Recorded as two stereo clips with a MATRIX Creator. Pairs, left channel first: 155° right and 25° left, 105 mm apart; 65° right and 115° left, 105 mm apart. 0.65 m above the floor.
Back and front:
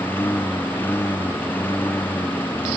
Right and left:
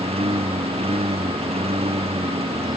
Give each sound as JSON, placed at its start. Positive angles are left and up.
{"t": 0.0, "sound": "a lawn mower", "azimuth_deg": 130}